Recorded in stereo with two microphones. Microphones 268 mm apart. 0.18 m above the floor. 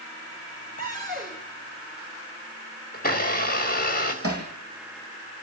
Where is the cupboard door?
35° right (ahead or behind), 5.5 m.